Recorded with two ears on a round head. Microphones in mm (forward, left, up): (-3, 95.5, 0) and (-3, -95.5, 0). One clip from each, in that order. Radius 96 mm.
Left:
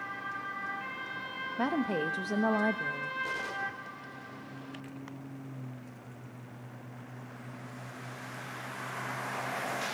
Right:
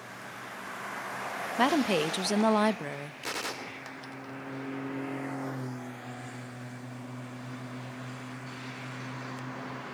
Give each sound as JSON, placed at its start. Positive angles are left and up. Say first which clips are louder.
{"t": 1.6, "sound": "a woman speaking", "louder": "right 6 dB", "side_deg": -70, "distance_m": 0.6}
{"t": 3.2, "sound": "a gunshot", "louder": "left 1 dB", "side_deg": -60, "distance_m": 1.1}